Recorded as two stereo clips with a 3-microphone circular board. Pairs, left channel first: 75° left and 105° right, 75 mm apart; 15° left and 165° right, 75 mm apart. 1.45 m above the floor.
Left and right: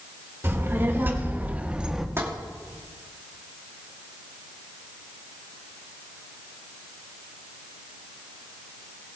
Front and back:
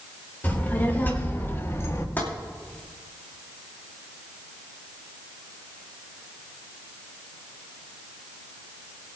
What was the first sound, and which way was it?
A child speaking, 50° right.